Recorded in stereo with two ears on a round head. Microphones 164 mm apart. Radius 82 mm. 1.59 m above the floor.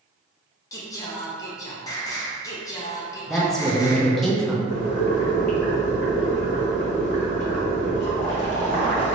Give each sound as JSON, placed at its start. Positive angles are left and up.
{"t": 0.7, "sound": "singing", "side_deg": 20, "distance_m": 0.5}
{"t": 3.3, "sound": "a woman speaking", "side_deg": 5, "distance_m": 0.6}
{"t": 4.7, "sound": "boiling", "side_deg": 40, "distance_m": 0.8}